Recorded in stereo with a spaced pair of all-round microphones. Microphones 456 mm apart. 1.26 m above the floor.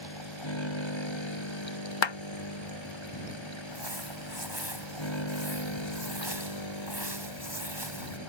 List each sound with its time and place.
0.0 s a machine running: 90° left
2.0 s a clap: 75° left (ahead or behind)
3.6 s crumpling: 75° right (ahead or behind)